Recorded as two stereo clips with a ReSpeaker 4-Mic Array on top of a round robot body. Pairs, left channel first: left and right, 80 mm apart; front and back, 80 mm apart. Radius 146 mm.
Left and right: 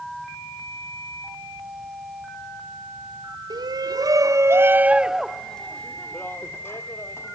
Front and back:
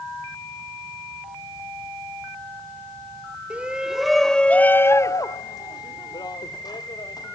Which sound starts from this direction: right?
A shout, at 3.5 s.